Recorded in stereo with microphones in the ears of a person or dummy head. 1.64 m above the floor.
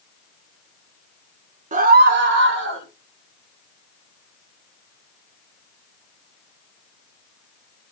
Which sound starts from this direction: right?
A scream, at 1.7 s.